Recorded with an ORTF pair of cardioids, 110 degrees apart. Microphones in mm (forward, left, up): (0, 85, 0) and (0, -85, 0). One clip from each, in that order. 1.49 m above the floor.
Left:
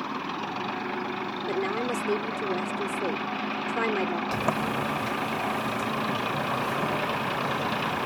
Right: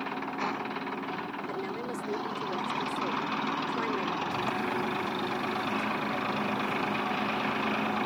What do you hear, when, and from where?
1.5 s a woman speaking: 50° left
4.3 s a sliding door: 60° left